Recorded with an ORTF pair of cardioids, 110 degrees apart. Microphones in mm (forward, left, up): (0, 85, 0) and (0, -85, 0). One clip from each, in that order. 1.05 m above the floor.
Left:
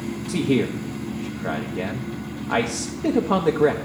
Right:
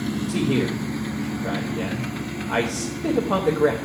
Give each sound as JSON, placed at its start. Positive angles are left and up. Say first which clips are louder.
{"t": 0.3, "sound": "a man speaking", "louder": "left 2 dB", "azimuth_deg": 20, "distance_m": 0.8}